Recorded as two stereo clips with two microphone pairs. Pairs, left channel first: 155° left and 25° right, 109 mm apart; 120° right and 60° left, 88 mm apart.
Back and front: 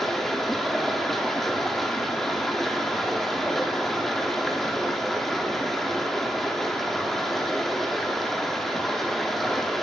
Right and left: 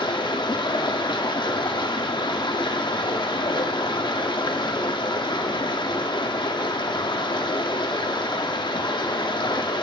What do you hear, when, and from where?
0.0 s running water: 115° right, 0.7 m